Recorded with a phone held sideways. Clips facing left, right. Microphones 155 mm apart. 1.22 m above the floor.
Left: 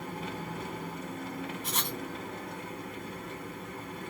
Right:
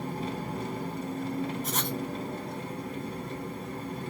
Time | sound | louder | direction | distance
0.0 | an engine running | right 4 dB | 30° right (ahead or behind) | 1.2 m
1.6 | writing | right 4 dB | 45° right (ahead or behind) | 1.9 m